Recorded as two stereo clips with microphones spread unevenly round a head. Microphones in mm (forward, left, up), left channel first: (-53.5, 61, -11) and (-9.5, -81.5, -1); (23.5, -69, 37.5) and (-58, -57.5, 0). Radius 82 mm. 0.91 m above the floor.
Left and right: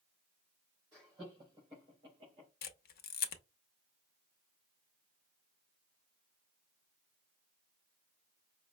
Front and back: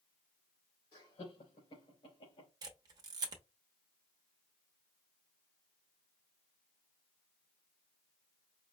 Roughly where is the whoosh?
No whoosh in this recording.